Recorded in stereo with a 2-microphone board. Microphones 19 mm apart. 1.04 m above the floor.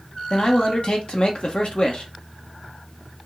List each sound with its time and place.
0.3 s a man speaking: 55° left (ahead or behind), 1.1 m